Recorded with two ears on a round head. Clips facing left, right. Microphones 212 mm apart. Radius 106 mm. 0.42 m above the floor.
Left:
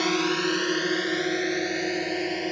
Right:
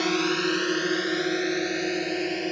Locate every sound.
0.0 s a drone: 5° right (ahead or behind)